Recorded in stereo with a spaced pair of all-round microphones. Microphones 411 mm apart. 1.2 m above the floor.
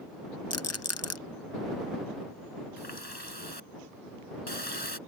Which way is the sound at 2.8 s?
70° left (ahead or behind).